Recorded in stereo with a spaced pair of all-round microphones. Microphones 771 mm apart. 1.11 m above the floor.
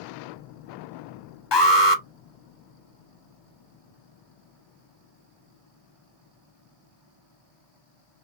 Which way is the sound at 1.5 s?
35° left (ahead or behind).